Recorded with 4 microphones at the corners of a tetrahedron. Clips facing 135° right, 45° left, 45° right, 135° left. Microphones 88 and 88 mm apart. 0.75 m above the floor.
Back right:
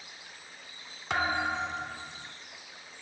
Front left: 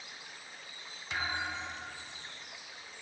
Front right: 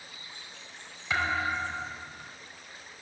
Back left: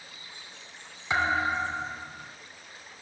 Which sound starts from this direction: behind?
A thud, at 1.1 s.